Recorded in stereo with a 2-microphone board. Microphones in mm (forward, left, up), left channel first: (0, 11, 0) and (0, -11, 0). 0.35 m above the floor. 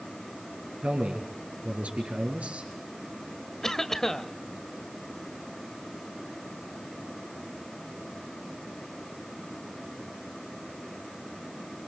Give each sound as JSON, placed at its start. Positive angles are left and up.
{"t": 0.8, "sound": "a man speaking", "side_deg": -75, "distance_m": 5.0}
{"t": 3.6, "sound": "a cough", "side_deg": 25, "distance_m": 1.4}